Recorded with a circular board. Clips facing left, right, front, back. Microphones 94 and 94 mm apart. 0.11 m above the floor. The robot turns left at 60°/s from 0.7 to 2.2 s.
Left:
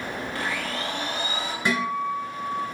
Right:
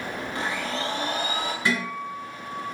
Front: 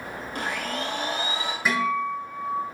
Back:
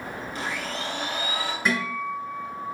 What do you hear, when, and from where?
0.3 s a blender: 25° right, 0.9 m; by 1.6 s 75° right, 0.9 m
1.6 s a guitar: 80° left, 1.7 m; by 2.6 s 50° left, 1.7 m